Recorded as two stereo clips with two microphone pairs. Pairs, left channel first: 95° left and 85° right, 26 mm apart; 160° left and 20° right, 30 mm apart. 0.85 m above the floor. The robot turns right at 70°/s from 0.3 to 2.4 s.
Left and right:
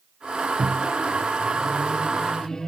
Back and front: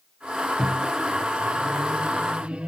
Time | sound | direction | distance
0.6 | a microwave | 100° right | 0.7 m